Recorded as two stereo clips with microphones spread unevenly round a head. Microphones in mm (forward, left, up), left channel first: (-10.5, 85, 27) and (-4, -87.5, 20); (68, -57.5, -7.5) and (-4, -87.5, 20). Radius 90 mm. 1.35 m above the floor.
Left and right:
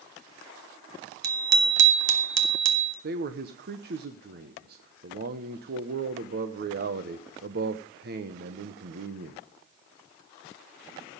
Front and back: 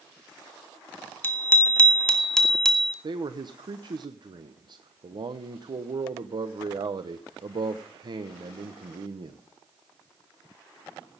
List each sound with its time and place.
1.2 s a bicycle bell: 50° right, 2 m; by 2.9 s 65° right, 2.5 m
3.0 s a man speaking: 120° right, 1.2 m